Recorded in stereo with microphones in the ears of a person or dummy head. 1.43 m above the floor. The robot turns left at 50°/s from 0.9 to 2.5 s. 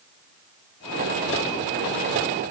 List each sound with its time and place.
Only background noise.